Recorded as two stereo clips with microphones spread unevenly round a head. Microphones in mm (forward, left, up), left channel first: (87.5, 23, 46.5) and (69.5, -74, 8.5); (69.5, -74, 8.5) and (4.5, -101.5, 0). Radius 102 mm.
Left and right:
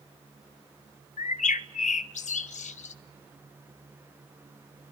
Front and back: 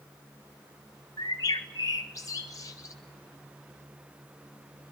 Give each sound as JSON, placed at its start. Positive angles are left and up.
{"t": 1.2, "sound": "a bird", "azimuth_deg": 95, "distance_m": 1.1}